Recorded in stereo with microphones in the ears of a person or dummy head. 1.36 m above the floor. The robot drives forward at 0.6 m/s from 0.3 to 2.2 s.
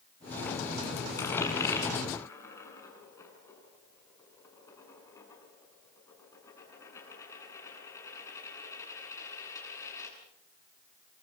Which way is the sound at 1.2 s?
15° left (ahead or behind).